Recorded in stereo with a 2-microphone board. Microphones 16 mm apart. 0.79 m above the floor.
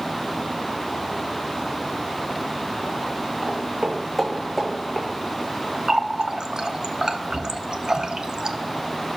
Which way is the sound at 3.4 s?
45° right (ahead or behind).